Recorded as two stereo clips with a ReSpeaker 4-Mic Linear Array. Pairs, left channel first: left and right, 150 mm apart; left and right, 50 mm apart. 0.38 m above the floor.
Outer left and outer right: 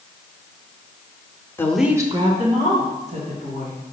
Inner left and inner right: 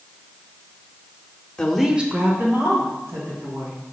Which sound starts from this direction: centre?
A woman speaking, at 1.6 s.